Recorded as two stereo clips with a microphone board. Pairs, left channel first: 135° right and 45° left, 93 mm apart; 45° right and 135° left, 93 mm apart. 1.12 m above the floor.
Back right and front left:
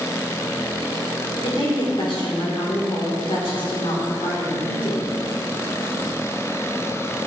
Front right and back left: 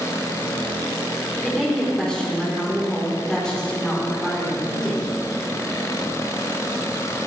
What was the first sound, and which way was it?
A woman speaking, 125° right.